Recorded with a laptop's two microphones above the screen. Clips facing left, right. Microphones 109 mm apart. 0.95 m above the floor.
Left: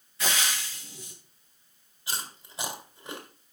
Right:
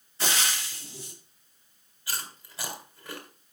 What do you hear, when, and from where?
0.2 s frying: 30° right (ahead or behind), 6.5 m
2.1 s chewing: 20° left (ahead or behind), 3.5 m